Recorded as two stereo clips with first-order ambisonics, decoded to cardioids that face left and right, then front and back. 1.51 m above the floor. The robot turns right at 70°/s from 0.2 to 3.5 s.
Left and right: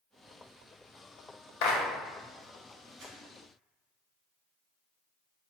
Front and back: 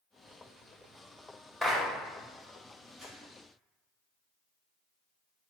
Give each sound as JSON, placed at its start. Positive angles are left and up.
{"t": 1.6, "sound": "a clap", "azimuth_deg": 90, "distance_m": 0.7}
{"t": 3.0, "sound": "crumpling", "azimuth_deg": -100, "distance_m": 1.2}